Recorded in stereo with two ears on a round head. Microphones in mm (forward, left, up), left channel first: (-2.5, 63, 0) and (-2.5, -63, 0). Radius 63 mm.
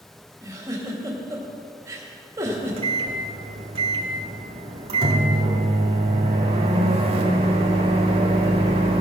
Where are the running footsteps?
No running footsteps in this recording.